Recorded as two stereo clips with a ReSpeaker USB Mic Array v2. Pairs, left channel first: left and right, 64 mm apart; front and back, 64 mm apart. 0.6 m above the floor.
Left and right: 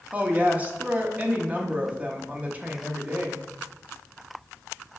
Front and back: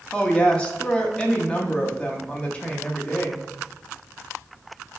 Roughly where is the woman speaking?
Ahead right.